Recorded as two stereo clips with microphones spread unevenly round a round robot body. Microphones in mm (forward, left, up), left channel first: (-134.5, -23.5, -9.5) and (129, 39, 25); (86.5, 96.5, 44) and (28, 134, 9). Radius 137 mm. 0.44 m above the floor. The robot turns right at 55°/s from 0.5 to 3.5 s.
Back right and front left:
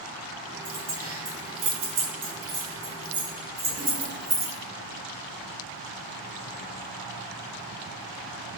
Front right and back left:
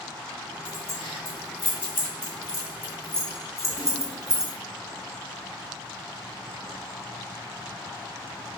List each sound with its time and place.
0.7 s keys jangling: 70° right, 1.1 m; by 4.5 s 85° left, 1.1 m